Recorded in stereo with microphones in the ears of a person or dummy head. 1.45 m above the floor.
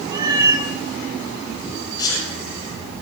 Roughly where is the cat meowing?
Right.